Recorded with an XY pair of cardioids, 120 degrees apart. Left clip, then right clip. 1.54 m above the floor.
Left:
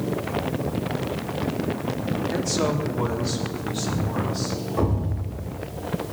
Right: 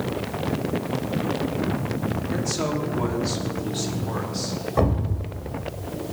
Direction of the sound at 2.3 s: 5° left.